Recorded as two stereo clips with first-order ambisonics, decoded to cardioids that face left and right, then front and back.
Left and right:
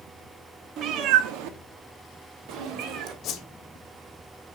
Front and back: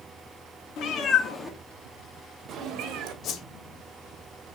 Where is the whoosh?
45° left, 1.5 m.